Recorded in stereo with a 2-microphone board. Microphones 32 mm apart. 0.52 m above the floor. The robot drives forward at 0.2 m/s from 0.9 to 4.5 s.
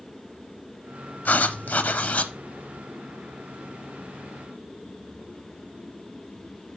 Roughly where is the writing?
Left.